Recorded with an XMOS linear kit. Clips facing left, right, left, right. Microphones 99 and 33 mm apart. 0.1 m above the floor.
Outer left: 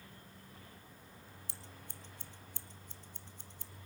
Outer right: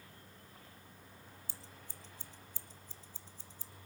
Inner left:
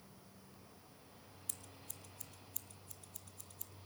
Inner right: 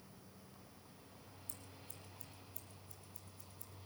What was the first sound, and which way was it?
Scissors, 65° left (ahead or behind).